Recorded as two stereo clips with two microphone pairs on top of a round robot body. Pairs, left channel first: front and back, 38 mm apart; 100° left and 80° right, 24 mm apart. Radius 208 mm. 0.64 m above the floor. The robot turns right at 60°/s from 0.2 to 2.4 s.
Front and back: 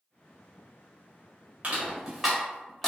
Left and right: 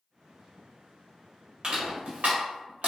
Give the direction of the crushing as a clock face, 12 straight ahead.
4 o'clock.